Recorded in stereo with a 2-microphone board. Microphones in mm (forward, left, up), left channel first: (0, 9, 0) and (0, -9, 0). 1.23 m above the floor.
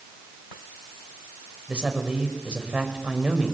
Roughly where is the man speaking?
Right.